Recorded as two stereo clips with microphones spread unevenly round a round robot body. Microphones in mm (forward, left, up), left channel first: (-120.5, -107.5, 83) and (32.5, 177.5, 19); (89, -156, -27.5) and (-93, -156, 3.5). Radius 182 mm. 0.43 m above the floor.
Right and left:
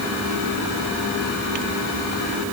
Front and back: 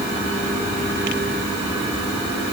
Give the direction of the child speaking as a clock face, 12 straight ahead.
I don't hear a child speaking.